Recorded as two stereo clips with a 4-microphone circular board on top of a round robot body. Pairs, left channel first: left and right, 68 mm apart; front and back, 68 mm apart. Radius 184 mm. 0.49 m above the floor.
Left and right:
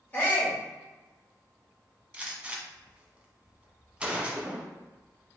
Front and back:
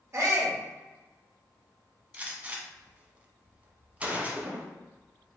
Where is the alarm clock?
I don't hear an alarm clock.